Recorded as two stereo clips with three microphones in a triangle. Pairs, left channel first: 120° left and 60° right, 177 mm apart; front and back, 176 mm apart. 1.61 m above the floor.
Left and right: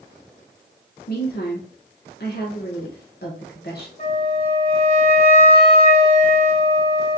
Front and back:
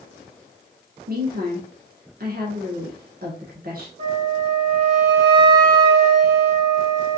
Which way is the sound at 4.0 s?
165° left.